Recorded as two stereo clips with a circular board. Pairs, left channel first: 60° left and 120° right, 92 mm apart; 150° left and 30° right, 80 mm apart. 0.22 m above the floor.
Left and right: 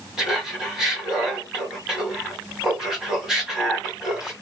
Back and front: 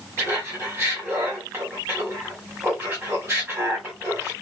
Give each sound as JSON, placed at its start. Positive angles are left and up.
{"t": 0.2, "sound": "laughter", "azimuth_deg": -45, "distance_m": 1.6}